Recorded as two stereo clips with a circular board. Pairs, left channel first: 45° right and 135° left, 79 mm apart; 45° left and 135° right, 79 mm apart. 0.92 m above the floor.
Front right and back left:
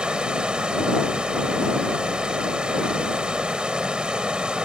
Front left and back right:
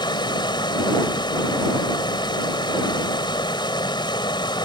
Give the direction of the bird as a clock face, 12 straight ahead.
I don't hear a bird.